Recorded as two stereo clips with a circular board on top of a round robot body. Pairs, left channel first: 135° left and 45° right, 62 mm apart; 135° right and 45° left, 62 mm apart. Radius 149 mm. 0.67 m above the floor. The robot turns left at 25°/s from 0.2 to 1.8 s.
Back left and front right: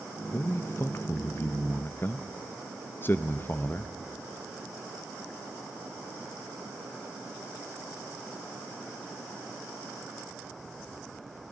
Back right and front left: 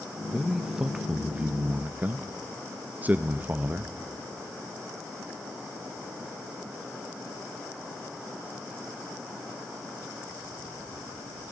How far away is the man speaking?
About 0.7 m.